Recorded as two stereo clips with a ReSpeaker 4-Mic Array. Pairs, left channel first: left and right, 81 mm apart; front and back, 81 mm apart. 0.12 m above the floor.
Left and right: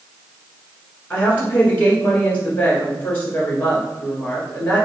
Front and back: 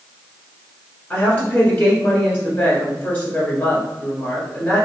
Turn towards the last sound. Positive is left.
turn(degrees=45)